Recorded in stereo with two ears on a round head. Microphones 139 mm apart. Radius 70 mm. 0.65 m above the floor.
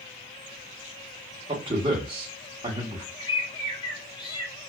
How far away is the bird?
About 1.6 m.